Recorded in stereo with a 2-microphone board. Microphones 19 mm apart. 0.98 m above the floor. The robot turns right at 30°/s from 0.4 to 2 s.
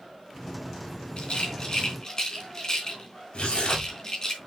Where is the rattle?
60° left (ahead or behind), 3.5 m; by 4.3 s 35° left (ahead or behind), 3.5 m.